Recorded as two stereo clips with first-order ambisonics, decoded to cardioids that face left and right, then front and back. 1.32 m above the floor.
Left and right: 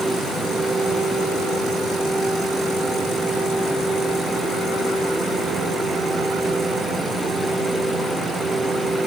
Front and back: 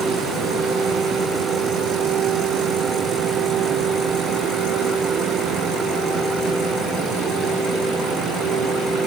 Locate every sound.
Only background noise.